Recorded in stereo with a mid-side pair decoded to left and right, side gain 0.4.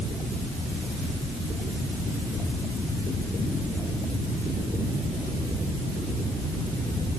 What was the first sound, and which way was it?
Only background noise.